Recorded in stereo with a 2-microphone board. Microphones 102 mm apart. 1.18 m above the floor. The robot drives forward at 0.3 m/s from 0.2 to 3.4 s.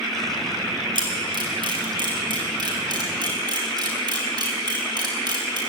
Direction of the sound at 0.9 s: 50° right (ahead or behind).